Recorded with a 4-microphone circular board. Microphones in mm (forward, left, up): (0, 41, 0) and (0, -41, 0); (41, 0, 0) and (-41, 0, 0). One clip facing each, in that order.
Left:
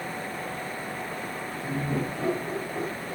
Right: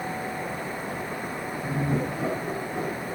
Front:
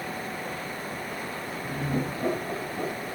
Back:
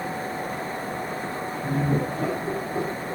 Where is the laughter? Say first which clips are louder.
Right 2 dB, back 5 dB; straight behind, 8 m; by 3.1 s 175° left, 8.5 m.